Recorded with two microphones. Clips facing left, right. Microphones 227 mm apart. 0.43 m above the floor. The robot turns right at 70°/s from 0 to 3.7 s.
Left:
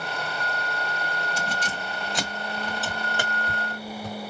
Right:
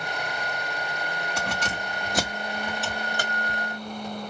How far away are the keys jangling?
About 1.8 m.